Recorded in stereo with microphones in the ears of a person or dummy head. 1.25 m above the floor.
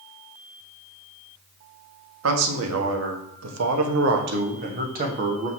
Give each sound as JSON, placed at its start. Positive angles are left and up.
{"t": 2.2, "sound": "a man speaking", "side_deg": -85, "distance_m": 2.0}